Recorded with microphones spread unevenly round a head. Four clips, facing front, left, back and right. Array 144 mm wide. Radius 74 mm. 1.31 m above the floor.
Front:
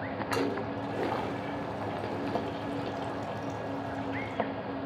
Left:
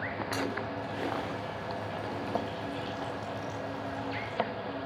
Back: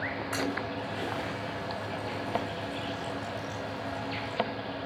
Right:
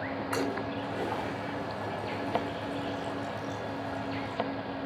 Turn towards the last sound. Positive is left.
turn(degrees=-30)